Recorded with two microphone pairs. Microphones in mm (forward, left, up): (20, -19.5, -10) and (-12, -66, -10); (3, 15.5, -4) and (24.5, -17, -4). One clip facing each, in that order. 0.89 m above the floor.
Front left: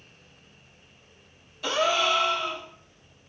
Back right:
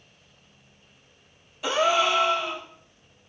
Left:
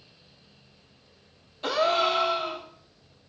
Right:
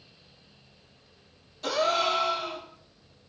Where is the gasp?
170° left, 1.1 m.